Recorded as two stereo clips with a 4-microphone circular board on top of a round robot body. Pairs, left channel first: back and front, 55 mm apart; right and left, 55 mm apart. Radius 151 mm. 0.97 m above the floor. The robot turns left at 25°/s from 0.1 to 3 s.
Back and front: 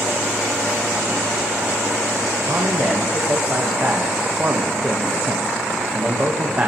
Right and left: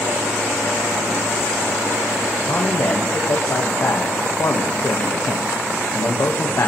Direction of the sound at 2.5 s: 45° right.